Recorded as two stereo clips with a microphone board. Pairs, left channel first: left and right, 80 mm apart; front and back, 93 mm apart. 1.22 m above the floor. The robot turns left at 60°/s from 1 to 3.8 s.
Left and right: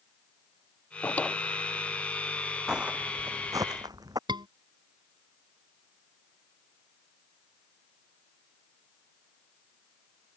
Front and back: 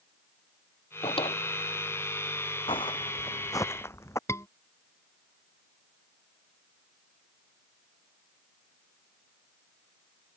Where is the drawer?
25° left; by 1.4 s 5° left.